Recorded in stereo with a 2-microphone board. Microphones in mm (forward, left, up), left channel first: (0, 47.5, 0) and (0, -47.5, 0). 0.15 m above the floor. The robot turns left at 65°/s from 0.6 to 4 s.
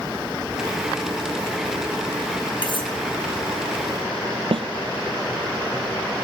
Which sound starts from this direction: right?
A snare drum, at 4.5 s.